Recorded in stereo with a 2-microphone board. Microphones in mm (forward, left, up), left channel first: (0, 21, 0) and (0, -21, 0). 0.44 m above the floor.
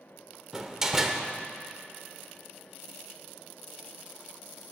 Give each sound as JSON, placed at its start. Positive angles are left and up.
{"t": 0.5, "sound": "a door slam", "side_deg": -15, "distance_m": 0.6}